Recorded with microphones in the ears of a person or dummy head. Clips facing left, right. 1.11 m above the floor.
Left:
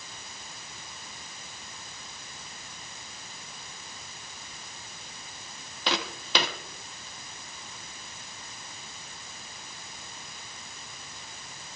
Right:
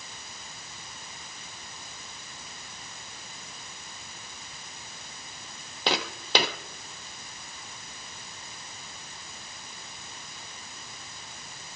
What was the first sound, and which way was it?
Footsteps, 35° right (ahead or behind).